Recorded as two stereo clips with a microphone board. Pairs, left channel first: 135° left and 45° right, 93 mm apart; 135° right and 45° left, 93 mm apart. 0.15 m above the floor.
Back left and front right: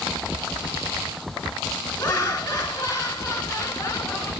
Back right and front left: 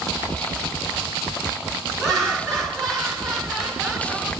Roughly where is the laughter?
Behind left.